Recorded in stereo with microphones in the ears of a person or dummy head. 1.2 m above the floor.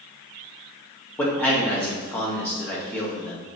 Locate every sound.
1.2 s a man speaking: 5° left (ahead or behind), 1.6 m